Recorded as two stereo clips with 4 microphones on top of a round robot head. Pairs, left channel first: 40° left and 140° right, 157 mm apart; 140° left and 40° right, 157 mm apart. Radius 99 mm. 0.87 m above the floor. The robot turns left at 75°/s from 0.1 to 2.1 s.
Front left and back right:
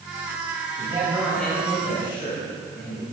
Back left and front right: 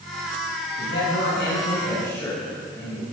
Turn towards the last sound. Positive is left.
turn(degrees=70)